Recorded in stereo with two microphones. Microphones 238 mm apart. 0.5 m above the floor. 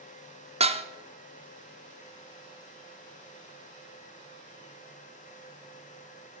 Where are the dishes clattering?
25° right (ahead or behind), 0.6 m.